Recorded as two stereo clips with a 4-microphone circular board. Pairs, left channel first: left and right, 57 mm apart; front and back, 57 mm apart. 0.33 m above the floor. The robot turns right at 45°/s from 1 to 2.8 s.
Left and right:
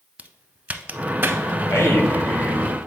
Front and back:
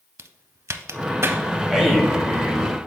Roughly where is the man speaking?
Left.